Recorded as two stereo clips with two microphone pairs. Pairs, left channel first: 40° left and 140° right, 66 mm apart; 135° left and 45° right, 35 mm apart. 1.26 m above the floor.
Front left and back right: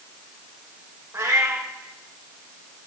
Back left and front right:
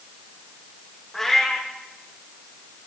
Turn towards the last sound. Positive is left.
turn(degrees=-150)